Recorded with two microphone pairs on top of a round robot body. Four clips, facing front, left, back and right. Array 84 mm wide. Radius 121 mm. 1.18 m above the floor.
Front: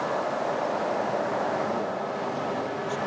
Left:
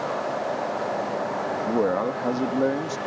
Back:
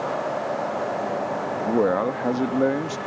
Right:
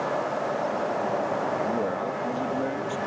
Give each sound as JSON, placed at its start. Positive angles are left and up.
{"t": 1.6, "sound": "a man speaking", "azimuth_deg": 150}